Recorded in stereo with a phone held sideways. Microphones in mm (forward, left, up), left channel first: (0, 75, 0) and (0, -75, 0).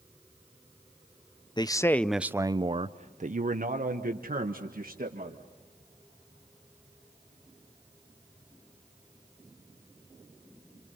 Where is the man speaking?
30° left (ahead or behind), 0.6 m; by 5.4 s 80° right, 1.9 m.